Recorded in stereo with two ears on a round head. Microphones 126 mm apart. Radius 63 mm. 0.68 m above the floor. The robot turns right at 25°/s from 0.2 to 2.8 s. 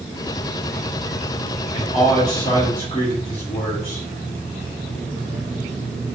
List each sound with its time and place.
1.7 s a man speaking: 35° left (ahead or behind), 1.4 m; by 4.0 s 50° left (ahead or behind), 1.4 m